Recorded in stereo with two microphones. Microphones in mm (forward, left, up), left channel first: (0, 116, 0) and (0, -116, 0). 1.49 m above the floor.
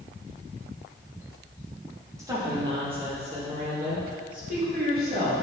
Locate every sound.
2.2 s a woman speaking: 15° right (ahead or behind), 1.7 m; by 5.3 s 45° right (ahead or behind), 3 m